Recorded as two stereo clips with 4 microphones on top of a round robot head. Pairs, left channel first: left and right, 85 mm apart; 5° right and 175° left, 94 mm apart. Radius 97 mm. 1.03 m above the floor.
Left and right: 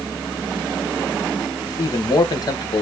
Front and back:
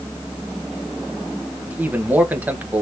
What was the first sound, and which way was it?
A man speaking, 110° left.